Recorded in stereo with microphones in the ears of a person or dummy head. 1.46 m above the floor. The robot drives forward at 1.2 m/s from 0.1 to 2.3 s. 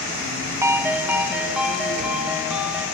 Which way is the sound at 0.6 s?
10° right (ahead or behind).